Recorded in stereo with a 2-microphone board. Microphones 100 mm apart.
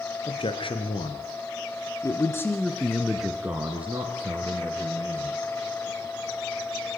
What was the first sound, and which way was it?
A man speaking, 65° left (ahead or behind).